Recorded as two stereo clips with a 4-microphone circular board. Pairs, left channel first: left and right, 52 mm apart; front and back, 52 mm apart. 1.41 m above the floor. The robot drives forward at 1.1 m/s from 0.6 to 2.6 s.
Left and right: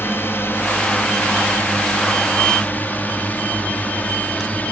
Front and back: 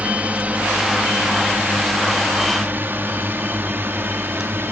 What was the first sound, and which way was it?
A drone, 120° left.